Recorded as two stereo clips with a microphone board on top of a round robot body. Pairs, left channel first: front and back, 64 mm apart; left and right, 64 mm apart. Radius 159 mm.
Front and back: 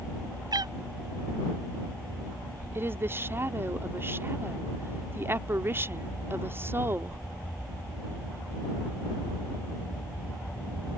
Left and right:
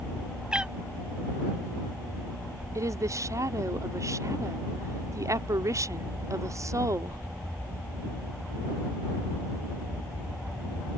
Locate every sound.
0.5 s a cat meowing: 170° right
2.8 s a woman speaking: 125° right